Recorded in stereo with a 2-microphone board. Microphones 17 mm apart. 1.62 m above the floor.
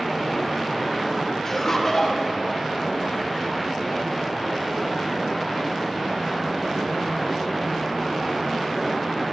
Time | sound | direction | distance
1.4 | laughter | 30° left (ahead or behind) | 0.8 m